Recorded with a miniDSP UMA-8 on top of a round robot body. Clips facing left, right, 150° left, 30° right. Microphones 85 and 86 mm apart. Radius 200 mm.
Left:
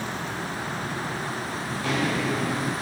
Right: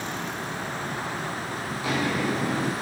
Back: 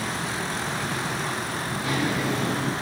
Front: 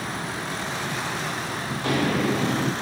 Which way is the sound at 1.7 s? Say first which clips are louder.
Left 1 dB, front 3 dB; 5° right.